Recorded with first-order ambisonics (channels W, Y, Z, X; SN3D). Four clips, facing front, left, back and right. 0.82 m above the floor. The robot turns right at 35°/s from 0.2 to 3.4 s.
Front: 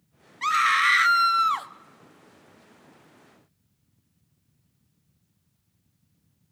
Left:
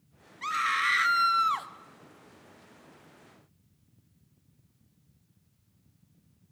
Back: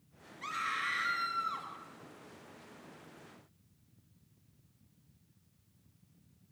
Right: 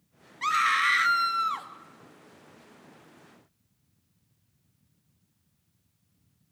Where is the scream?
25° right, 1.3 m; by 1.7 s 20° left, 1.3 m.